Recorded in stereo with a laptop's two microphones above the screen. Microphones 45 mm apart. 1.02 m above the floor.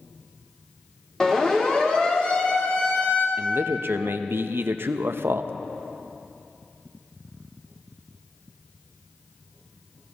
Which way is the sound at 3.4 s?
60° right (ahead or behind).